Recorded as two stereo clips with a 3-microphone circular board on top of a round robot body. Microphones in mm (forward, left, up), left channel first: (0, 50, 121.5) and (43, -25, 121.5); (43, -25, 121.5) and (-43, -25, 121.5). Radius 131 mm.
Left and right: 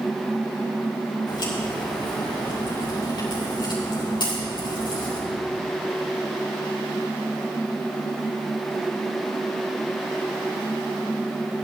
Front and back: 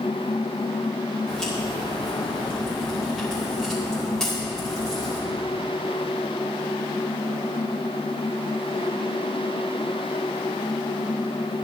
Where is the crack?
85° left, 4 m.